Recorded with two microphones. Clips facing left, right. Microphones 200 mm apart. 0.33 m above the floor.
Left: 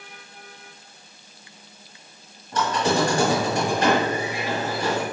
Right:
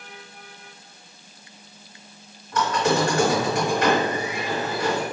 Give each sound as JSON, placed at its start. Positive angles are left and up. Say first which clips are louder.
{"t": 2.5, "sound": "a squeak", "louder": "right 1 dB", "side_deg": 30, "distance_m": 1.2}